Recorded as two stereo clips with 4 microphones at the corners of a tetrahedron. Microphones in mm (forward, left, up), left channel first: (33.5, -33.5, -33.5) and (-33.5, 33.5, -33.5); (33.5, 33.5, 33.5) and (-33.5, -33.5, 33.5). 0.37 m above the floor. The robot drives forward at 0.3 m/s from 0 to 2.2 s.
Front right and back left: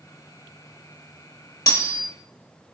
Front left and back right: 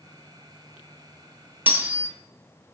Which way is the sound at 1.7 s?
75° right.